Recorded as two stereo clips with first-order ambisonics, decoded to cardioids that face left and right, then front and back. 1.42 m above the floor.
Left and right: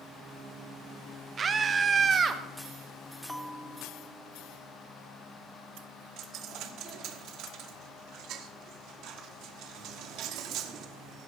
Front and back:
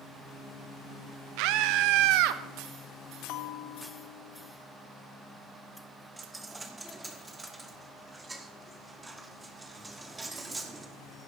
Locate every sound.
1.4 s a scream: 160° right, 1.1 m
3.3 s a bell: straight ahead, 0.8 m
6.2 s a dropped coin: 105° right, 1.2 m